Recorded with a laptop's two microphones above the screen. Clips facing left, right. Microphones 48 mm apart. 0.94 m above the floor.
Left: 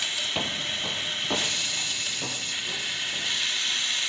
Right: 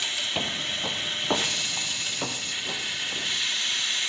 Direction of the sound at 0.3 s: Centre (ahead or behind).